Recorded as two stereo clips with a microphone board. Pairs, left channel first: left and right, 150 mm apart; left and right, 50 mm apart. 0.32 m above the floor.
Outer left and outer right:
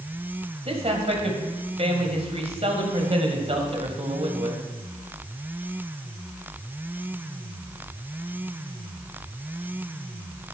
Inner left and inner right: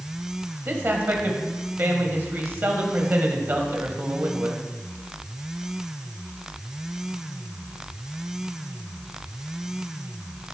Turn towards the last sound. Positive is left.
turn(degrees=-45)  # may be behind; listen again after turning